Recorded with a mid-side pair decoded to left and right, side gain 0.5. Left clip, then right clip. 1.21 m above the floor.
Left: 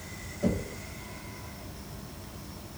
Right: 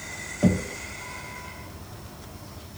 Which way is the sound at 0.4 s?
65° right.